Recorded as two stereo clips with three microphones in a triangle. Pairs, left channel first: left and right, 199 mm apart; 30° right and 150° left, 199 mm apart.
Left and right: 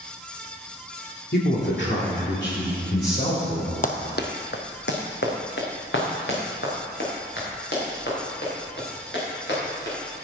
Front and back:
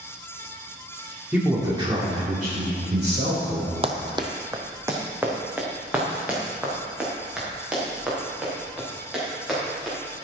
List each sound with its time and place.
1.3 s a man speaking: 70° left, 2 m; by 3.7 s 130° left, 3.5 m
3.8 s running footsteps: 105° left, 0.9 m; by 9.9 s 60° left, 8 m